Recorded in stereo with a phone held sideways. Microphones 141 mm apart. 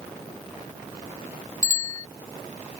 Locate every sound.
1.6 s a bicycle bell: 70° right (ahead or behind)